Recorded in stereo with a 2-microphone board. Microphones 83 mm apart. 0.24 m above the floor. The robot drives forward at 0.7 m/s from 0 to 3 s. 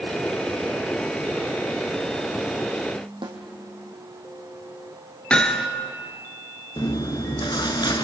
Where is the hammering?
10° left (ahead or behind), 1.7 m.